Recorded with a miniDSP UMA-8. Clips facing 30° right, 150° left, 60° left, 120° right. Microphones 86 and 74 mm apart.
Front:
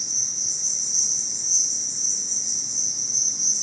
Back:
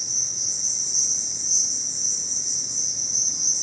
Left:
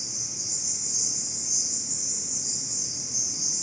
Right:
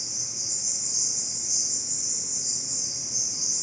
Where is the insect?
75° left, 1.2 m.